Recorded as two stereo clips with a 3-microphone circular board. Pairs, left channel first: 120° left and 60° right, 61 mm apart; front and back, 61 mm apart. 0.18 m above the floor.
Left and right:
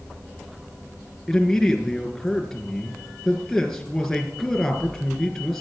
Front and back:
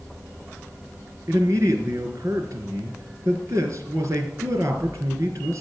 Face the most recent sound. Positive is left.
turn(degrees=-150)